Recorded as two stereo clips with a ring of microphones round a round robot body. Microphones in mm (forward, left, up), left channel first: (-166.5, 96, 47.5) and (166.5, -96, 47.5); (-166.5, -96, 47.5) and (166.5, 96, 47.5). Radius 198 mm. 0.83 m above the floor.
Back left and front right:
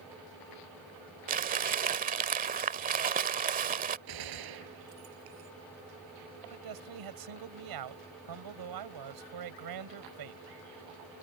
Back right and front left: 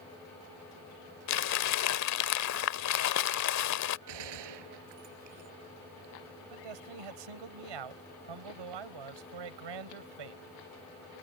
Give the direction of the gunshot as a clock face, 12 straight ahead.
12 o'clock.